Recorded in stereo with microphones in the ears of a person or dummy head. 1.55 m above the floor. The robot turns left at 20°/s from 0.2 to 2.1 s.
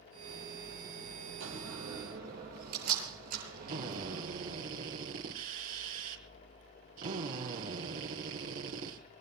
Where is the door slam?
60° right (ahead or behind), 9.5 m; by 4.2 s 45° right (ahead or behind), 9.5 m.